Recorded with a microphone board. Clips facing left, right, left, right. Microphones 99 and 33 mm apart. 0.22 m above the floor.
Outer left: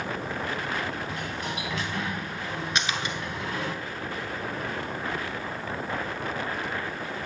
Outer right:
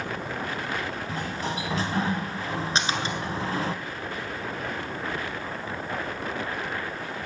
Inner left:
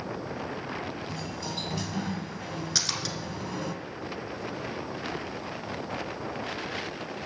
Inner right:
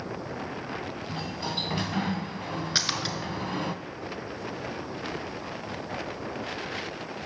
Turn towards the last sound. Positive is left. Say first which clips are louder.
# outer right 2 dB, inner right 3 dB
turn(degrees=-30)  # may be behind; listen again after turning